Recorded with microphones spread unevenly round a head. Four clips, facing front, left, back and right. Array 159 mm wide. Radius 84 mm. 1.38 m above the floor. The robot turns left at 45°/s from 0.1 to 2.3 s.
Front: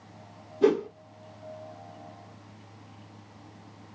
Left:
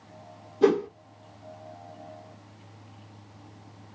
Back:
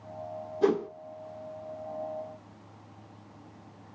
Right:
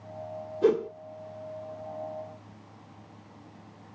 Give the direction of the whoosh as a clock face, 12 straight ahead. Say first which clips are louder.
Left 2 dB, front 3 dB; 9 o'clock.